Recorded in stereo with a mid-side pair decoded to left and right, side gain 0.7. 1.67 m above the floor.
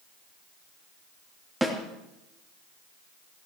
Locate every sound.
1.6 s a snare drum: 10° right, 3.5 m